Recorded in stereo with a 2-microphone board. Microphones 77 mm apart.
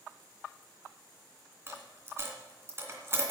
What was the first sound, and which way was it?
A dropped coin, 30° right (ahead or behind).